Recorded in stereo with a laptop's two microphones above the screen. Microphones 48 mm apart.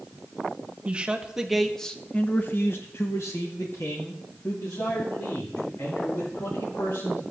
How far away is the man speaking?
About 1.4 m.